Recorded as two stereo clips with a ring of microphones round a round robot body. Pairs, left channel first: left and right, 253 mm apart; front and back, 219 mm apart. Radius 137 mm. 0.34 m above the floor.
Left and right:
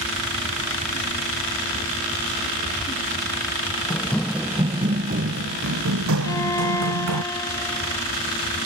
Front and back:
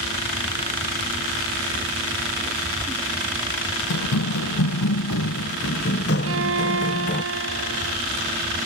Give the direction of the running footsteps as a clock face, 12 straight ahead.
12 o'clock.